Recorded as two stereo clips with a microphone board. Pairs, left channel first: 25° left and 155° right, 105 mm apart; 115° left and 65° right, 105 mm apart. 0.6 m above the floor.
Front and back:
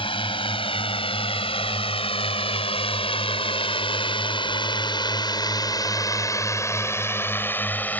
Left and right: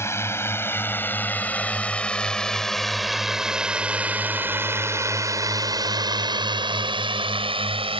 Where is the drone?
50° left; by 8.0 s 50° right.